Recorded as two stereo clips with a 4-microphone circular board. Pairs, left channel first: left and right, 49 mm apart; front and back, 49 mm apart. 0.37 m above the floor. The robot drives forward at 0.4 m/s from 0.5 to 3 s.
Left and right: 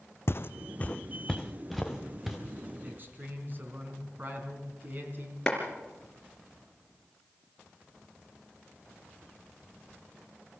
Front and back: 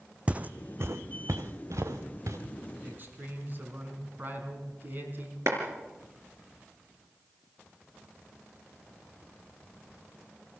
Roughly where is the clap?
Behind.